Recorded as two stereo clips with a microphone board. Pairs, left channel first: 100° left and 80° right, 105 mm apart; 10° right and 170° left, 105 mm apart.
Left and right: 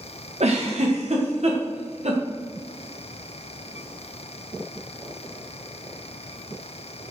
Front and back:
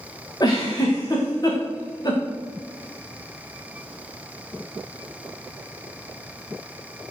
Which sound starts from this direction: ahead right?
A giggle, at 0.4 s.